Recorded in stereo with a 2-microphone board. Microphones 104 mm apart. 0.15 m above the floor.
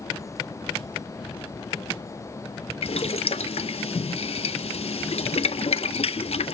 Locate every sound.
2.8 s boiling: 75° left (ahead or behind), 0.5 m